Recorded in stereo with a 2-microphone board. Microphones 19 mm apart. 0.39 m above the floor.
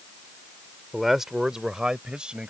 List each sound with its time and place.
0.9 s a man speaking: 10° right (ahead or behind); by 2.5 s 55° right (ahead or behind)